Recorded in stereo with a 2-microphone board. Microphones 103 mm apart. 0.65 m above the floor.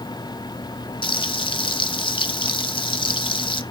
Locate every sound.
1.0 s frying: 50° left (ahead or behind), 0.9 m